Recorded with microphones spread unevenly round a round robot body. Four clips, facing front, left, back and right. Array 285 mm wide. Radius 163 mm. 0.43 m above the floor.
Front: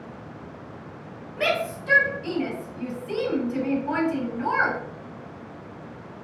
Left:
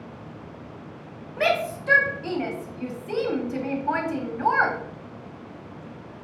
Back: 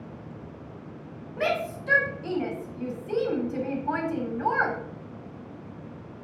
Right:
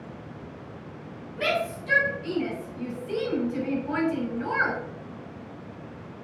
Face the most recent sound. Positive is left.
turn(degrees=80)